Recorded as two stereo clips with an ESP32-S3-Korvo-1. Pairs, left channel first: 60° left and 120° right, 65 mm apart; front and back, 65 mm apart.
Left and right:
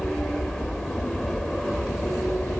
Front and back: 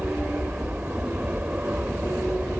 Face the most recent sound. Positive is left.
turn(degrees=140)